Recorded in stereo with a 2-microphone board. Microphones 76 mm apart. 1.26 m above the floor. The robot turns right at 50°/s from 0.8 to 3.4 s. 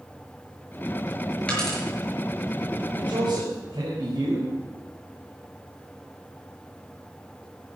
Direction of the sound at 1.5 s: 15° left (ahead or behind).